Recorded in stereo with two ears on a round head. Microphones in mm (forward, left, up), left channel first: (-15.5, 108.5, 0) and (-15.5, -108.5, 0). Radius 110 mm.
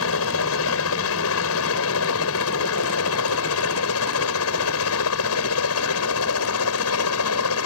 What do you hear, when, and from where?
0.0 s a helicopter: 65° left (ahead or behind); by 7.7 s 70° left (ahead or behind)